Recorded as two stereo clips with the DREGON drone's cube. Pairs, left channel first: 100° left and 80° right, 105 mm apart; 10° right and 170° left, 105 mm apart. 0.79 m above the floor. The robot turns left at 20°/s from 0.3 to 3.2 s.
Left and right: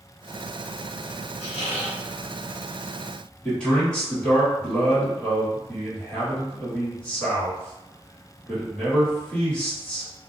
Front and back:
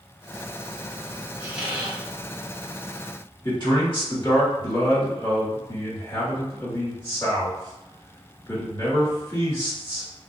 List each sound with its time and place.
1.4 s a squeak: 90° left, 0.8 m; by 2.0 s 80° left, 0.8 m
3.4 s a man speaking: 20° left, 1.8 m